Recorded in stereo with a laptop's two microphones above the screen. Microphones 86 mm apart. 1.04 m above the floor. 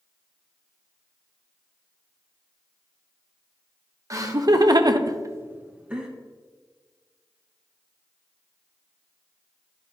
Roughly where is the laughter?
Right.